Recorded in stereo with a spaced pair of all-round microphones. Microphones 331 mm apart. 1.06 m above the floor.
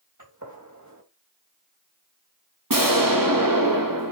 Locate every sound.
0.2 s a gunshot: 60° right (ahead or behind), 3 m
2.7 s an explosion: 75° right (ahead or behind), 1.6 m